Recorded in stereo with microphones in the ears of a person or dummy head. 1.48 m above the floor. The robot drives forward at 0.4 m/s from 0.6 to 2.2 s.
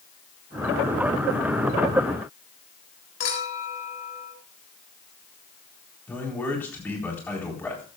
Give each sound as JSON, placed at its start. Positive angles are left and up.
{"t": 3.2, "sound": "a clink", "side_deg": 50, "distance_m": 4.0}
{"t": 6.1, "sound": "a man speaking", "side_deg": 10, "distance_m": 4.0}